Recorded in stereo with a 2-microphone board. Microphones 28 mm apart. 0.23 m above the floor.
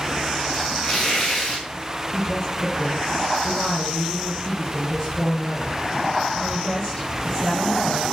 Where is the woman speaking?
25° left (ahead or behind), 6.5 m.